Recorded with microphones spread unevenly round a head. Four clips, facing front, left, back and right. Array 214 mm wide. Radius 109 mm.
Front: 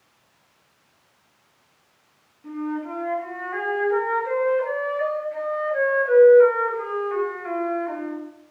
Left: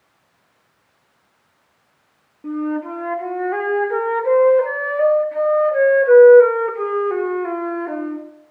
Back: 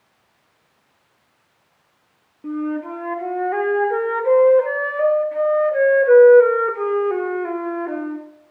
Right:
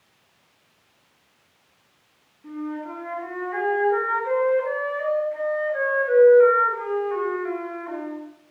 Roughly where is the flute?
Behind left.